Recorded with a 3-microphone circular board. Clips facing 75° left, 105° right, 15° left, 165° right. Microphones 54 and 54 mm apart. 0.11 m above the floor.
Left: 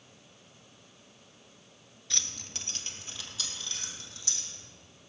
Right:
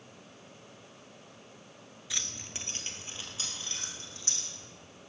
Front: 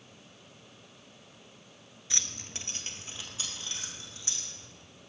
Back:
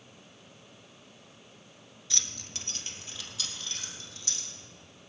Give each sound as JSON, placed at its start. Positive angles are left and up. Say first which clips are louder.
{"t": 2.1, "sound": "keys jangling", "louder": "even, even", "azimuth_deg": -30, "distance_m": 1.0}